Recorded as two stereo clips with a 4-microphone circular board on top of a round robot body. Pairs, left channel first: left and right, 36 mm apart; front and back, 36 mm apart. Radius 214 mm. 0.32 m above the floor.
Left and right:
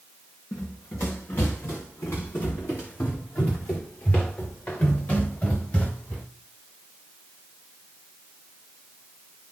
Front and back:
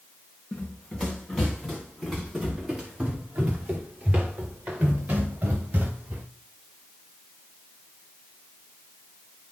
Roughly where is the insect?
I don't hear an insect.